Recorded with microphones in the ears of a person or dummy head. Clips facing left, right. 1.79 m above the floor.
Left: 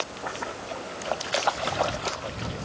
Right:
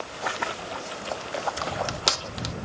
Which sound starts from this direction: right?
Crushing, at 1.6 s.